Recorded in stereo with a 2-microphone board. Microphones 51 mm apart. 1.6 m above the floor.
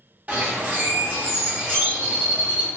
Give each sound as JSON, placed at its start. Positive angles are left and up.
{"t": 0.3, "sound": "a bird", "side_deg": -35, "distance_m": 0.9}